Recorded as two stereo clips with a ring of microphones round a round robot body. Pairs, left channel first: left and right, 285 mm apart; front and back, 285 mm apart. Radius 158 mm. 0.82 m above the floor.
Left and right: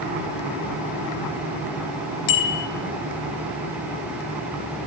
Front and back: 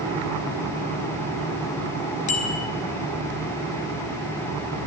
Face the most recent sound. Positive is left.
turn(degrees=70)